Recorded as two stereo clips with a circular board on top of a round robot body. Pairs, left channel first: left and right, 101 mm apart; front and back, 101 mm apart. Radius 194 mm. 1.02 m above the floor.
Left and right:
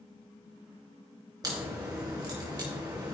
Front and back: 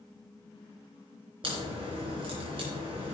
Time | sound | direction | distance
1.4 | a crack | 140° right | 3.5 m